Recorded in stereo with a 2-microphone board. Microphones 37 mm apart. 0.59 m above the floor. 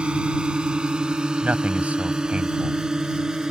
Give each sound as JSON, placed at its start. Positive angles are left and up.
{"t": 0.0, "sound": "a drone", "side_deg": -25}
{"t": 1.4, "sound": "a man speaking", "side_deg": -35}